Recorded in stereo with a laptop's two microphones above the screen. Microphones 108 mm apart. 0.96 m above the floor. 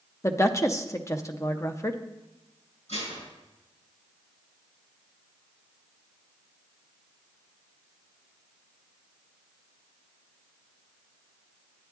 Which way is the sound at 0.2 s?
25° left (ahead or behind).